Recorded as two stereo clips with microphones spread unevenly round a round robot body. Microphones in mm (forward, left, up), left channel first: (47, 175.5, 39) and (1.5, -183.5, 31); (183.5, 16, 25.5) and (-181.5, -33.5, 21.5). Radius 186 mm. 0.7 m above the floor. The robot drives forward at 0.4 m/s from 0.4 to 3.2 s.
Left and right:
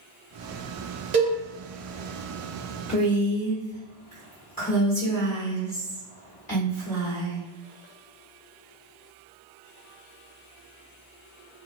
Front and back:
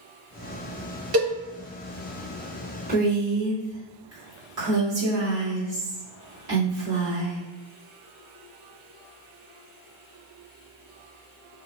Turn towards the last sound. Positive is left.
turn(degrees=150)